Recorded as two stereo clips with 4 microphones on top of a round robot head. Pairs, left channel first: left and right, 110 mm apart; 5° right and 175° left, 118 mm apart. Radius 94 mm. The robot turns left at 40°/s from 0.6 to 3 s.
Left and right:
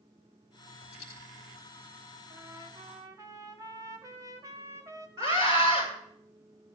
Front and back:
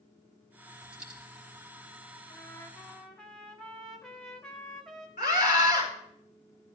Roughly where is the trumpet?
Ahead right.